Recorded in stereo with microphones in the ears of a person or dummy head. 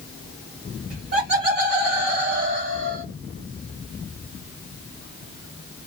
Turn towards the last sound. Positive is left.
turn(degrees=-70)  # may be behind; listen again after turning